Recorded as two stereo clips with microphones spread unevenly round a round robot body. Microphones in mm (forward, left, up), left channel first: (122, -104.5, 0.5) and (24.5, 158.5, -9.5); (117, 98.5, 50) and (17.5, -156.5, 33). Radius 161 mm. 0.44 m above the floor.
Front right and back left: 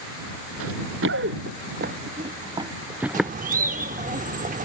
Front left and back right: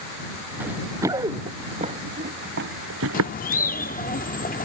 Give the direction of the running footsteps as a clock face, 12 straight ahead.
7 o'clock.